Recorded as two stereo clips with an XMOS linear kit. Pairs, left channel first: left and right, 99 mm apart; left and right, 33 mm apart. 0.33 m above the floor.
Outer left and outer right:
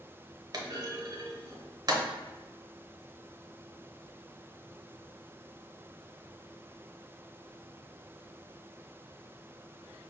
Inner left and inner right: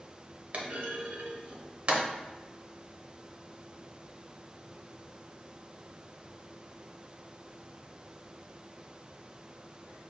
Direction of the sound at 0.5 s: 45° right (ahead or behind).